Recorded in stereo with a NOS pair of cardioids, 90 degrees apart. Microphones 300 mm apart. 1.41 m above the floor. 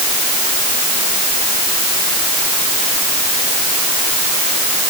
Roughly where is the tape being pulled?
I don't hear tape being pulled.